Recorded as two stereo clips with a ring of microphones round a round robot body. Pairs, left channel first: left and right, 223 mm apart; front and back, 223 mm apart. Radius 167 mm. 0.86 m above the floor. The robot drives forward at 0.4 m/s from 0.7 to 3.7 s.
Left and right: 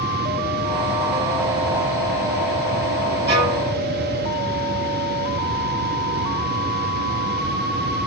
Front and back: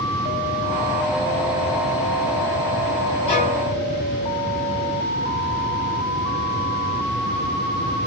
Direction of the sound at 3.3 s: 65° right.